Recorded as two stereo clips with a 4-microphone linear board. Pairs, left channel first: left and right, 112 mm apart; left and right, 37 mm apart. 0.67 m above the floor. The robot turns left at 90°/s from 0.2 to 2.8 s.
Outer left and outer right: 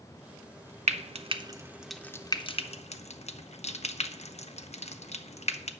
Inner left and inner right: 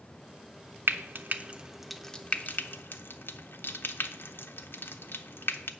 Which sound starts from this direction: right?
Frying, at 0.9 s.